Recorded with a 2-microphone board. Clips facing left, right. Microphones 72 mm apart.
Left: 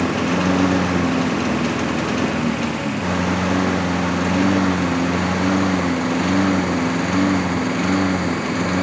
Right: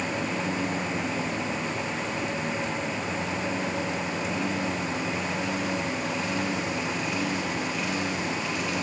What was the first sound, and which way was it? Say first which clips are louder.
A lawn mower: left 10 dB; 90° left.